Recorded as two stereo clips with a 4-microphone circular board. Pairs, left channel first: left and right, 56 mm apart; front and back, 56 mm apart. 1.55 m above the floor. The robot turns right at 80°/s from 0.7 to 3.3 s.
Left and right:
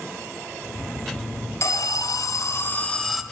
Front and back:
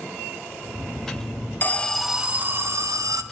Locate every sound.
1.6 s an alarm: 55° left, 1.2 m; by 3.2 s 175° right, 1.2 m